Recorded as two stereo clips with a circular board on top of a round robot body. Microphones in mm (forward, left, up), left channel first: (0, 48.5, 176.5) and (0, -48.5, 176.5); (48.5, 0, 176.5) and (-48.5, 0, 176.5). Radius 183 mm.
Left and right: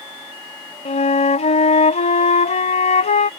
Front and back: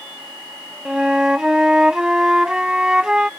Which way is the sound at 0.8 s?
95° left.